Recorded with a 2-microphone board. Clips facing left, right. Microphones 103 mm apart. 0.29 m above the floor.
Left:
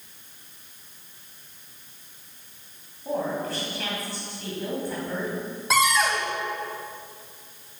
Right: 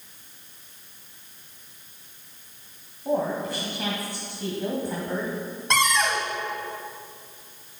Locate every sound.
3.0 s a woman speaking: 20° right (ahead or behind), 2 m
5.7 s a cupboard door: 5° left (ahead or behind), 1.5 m